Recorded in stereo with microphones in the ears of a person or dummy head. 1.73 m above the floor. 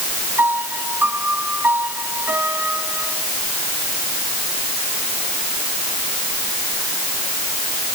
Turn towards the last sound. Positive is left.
turn(degrees=-10)  # may be behind; listen again after turning